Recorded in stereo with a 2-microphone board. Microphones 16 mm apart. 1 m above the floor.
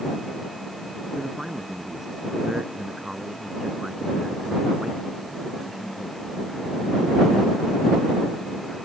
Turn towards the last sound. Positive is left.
turn(degrees=-20)  # may be behind; listen again after turning